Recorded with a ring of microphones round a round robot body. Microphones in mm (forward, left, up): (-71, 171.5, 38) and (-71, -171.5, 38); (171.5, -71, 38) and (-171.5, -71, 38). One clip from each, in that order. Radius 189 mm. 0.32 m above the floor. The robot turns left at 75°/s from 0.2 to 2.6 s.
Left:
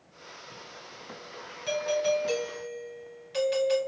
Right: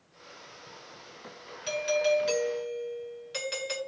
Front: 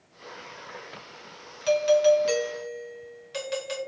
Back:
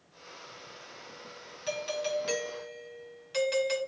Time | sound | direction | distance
1.7 | a doorbell | 40° right | 2 m